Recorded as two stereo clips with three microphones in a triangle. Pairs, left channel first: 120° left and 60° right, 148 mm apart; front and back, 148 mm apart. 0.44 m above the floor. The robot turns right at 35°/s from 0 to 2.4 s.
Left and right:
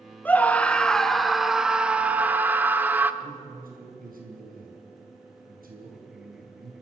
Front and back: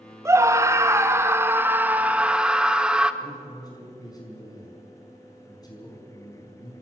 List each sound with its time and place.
0.2 s a scream: 175° left, 0.8 m; by 3.1 s 110° right, 0.8 m
3.2 s a man speaking: 65° right, 5.5 m